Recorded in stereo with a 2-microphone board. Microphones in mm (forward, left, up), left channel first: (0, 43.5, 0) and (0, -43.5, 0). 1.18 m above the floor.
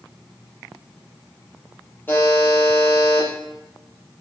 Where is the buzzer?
25° left (ahead or behind), 6 m.